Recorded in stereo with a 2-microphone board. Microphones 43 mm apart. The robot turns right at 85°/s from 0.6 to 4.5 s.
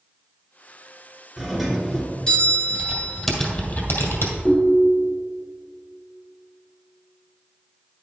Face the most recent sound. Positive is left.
turn(degrees=10)  # may be behind; listen again after turning